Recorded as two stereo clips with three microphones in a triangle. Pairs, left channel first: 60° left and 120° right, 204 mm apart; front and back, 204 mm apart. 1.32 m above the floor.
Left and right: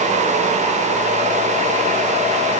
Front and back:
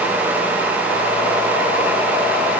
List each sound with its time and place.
Only background noise.